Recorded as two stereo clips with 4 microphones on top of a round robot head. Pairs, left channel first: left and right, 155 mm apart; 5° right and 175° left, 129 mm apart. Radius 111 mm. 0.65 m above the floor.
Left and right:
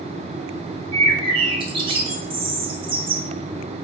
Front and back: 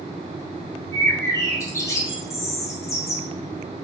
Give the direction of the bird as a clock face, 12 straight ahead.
2 o'clock.